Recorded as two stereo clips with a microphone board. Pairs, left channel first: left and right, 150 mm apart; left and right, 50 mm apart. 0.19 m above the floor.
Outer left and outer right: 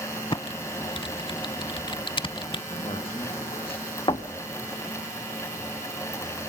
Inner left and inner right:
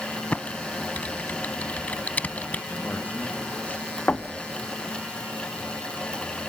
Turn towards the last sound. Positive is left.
turn(degrees=35)  # may be behind; listen again after turning